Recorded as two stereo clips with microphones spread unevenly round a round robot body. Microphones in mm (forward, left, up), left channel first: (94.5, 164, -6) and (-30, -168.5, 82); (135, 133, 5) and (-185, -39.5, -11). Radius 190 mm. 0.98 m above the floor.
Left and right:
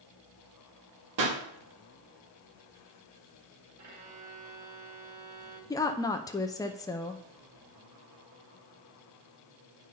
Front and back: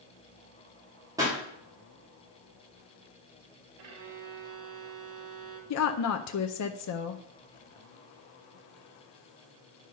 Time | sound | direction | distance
1.2 | a pop | 70° right | 1.8 m
3.8 | a violin | 165° right | 2 m
5.7 | a woman speaking | 15° left | 0.6 m